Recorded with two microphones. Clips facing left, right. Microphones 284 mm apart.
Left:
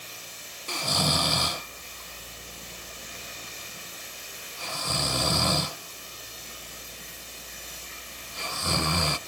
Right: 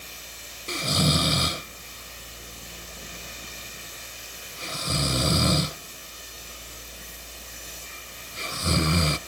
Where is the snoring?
25° right (ahead or behind).